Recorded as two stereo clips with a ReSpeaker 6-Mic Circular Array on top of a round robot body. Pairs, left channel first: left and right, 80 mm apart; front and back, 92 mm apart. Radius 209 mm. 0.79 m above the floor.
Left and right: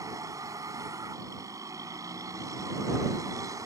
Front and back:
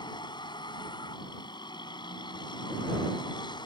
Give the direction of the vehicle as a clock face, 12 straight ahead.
1 o'clock.